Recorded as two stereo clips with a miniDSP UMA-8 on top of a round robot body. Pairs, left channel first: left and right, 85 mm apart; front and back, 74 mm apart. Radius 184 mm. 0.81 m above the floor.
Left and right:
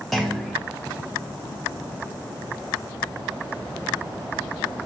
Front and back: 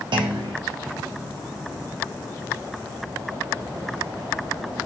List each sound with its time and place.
0.1 s a clunk: straight behind, 0.6 m